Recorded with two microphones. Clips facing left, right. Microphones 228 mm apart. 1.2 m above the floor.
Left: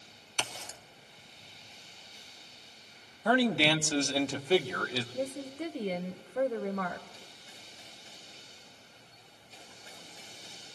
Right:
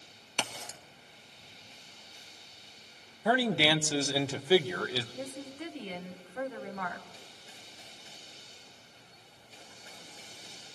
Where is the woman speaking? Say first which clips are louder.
Left 5 dB; 40° left (ahead or behind), 0.7 m.